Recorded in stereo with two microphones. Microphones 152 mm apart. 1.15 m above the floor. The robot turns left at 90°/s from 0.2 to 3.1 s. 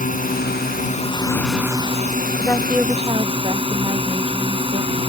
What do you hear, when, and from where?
0.0 s a drone: 120° left; by 5.1 s 145° right
2.4 s a woman speaking: 25° left; by 5.0 s 40° right